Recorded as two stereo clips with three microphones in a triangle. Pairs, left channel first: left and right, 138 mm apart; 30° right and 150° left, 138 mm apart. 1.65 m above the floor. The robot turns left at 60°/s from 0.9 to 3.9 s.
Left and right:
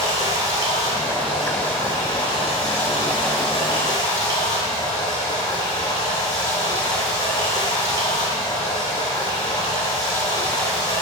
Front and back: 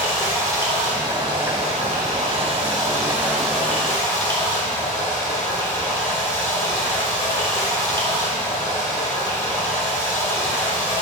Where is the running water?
145° right, 3 m; by 11.0 s 35° left, 3 m.